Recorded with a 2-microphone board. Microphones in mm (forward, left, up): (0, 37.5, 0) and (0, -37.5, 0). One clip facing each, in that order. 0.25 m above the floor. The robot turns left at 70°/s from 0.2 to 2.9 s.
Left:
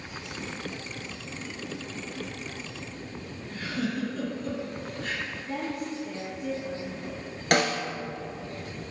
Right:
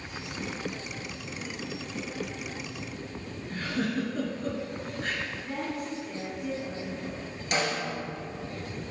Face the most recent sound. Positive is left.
turn(degrees=65)  # may be behind; listen again after turning